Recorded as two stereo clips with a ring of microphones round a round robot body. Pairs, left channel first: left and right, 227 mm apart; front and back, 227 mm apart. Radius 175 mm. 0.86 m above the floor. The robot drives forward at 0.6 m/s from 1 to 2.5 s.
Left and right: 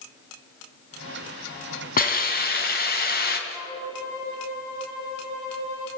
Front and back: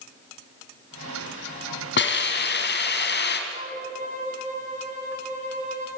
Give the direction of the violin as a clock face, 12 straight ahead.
8 o'clock.